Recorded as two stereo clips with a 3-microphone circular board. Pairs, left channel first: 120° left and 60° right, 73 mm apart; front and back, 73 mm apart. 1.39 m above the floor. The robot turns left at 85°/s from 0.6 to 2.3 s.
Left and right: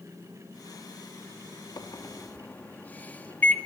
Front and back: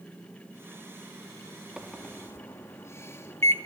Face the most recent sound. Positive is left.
turn(degrees=50)